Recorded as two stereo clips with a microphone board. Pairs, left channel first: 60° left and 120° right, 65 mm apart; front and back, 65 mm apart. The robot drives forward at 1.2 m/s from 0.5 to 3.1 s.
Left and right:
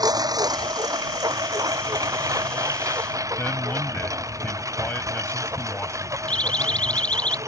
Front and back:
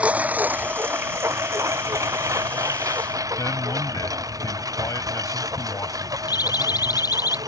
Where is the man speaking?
5° left.